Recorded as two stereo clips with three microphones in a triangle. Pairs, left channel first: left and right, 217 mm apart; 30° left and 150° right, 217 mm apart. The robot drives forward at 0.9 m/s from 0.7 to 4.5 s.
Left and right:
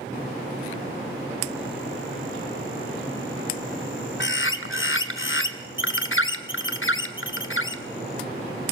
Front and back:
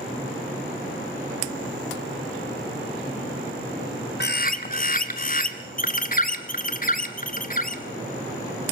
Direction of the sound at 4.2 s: 60° left.